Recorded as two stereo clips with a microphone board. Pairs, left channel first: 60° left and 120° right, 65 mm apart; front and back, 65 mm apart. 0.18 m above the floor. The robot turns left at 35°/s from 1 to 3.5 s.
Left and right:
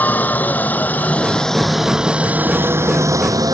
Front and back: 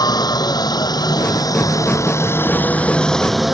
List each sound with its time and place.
0.0 s a helicopter: 5° right; by 3.5 s 95° right